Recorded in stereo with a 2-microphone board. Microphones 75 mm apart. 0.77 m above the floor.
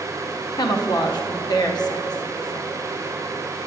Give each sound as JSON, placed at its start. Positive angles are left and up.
{"t": 0.6, "sound": "a woman speaking", "side_deg": 65, "distance_m": 0.9}